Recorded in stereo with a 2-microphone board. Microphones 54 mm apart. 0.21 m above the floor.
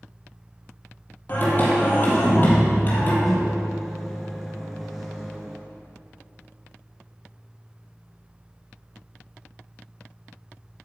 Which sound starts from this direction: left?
Singing, at 1.3 s.